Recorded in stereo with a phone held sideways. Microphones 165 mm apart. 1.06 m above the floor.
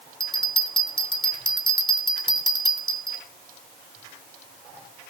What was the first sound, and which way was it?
A bell, 30° left (ahead or behind).